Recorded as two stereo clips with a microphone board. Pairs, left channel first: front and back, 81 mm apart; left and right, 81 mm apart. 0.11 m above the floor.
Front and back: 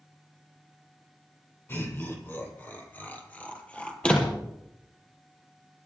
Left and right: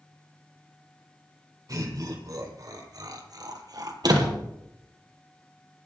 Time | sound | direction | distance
1.7 | laughter | 55° right | 4 m
4.0 | a door slam | 75° right | 2.5 m